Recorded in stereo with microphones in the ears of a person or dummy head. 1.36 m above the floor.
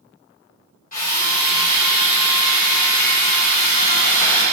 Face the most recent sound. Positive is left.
turn(degrees=50)  # may be behind; listen again after turning